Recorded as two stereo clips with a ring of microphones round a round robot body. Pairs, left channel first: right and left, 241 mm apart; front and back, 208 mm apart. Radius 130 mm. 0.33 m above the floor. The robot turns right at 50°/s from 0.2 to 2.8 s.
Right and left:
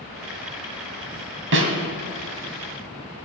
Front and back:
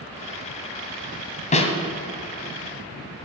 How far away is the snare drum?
About 2 m.